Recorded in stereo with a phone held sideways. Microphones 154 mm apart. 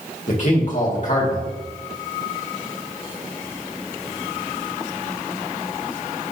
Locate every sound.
0.3 s a man speaking: 55° left (ahead or behind), 2 m